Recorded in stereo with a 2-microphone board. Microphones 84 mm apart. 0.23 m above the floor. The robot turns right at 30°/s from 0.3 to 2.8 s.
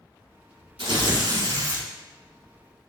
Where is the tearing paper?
80° right, 0.6 m; by 1.9 s 50° right, 0.6 m.